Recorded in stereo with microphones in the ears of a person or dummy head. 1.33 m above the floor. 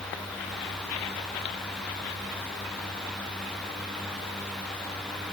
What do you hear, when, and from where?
Only background noise.